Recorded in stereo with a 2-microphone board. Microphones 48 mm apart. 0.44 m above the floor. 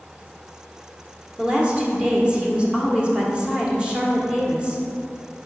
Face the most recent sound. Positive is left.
turn(degrees=-20)  # may be behind; listen again after turning